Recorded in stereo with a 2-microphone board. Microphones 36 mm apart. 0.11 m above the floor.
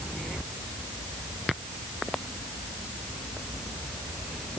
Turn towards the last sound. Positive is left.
No sound to turn to.